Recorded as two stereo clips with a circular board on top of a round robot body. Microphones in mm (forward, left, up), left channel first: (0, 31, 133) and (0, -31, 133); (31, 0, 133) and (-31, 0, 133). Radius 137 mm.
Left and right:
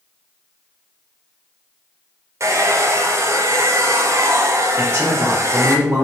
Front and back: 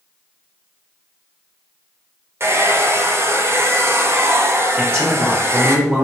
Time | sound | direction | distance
2.4 | a hair dryer | 130° right | 0.6 m
4.8 | a man speaking | 120° right | 1.2 m